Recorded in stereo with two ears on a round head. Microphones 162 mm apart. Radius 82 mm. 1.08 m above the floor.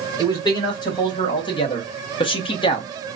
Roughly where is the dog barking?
I don't hear a dog barking.